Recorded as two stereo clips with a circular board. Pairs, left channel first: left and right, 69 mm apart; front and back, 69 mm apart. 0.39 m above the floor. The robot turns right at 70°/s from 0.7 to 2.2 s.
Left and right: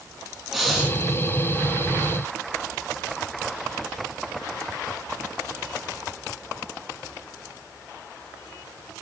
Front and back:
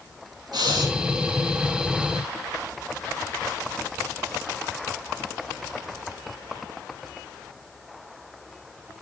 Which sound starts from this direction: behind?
Breathing, at 0.5 s.